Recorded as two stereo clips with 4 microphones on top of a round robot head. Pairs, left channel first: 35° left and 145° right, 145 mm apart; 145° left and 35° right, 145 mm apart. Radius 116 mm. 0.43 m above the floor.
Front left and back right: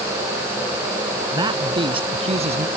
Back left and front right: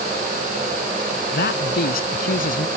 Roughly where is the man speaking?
Behind left.